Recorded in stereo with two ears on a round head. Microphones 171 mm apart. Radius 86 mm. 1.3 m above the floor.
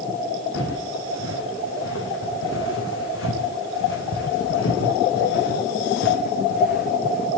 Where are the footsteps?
75° left (ahead or behind), 6 m; by 7.3 s 50° left (ahead or behind), 4.5 m.